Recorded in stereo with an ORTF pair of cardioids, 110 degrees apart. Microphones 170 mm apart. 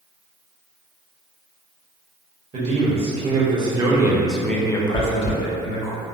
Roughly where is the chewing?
Ahead right.